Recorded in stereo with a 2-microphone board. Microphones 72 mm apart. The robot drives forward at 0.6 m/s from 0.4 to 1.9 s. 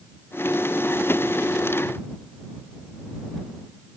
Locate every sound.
Only background noise.